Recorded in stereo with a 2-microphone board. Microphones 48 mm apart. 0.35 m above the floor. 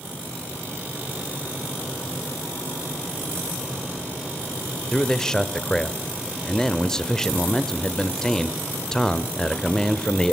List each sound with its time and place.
4.9 s a man speaking: 15° left (ahead or behind), 0.8 m